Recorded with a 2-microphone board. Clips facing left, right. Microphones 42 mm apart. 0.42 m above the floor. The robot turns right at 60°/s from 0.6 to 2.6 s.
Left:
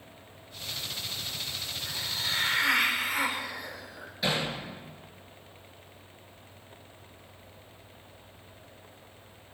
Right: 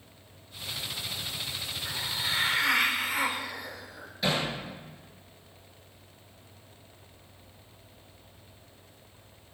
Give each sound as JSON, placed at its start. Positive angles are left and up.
{"t": 1.9, "sound": "a hiss", "azimuth_deg": -45, "distance_m": 1.6}
{"t": 4.2, "sound": "hammering", "side_deg": 0, "distance_m": 6.0}